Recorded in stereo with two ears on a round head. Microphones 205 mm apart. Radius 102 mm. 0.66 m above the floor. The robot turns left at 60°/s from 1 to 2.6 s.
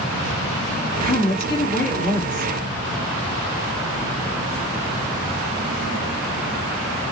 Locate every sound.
1.0 s a woman speaking: 160° left, 1.7 m; by 2.5 s 75° left, 1.7 m